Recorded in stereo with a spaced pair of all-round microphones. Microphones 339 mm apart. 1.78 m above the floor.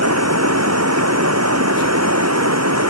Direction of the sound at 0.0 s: 50° right (ahead or behind).